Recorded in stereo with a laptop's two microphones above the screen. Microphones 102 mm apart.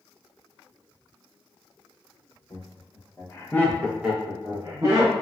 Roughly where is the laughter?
Left.